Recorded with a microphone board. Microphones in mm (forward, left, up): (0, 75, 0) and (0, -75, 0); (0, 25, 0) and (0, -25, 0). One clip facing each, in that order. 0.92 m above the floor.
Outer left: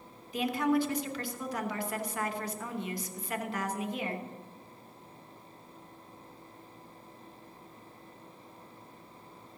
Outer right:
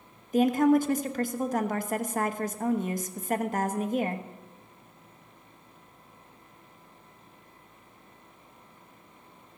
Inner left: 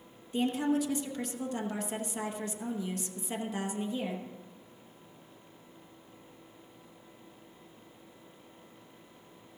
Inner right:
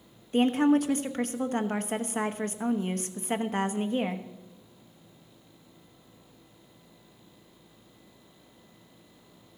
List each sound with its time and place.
0.3 s a woman speaking: 45° right (ahead or behind), 0.9 m